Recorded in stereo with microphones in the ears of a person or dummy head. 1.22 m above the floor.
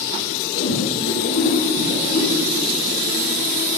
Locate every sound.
0.5 s a whoosh: 80° left, 9.5 m